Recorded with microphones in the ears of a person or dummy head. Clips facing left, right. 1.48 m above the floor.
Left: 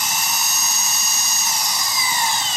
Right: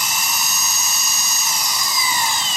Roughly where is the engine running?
Right.